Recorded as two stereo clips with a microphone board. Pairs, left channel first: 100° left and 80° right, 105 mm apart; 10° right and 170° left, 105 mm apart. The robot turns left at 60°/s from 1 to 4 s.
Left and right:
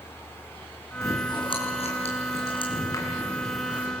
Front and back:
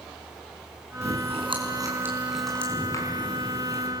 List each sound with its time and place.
1.0 s chewing: 165° left, 5 m; by 3.9 s 10° right, 5 m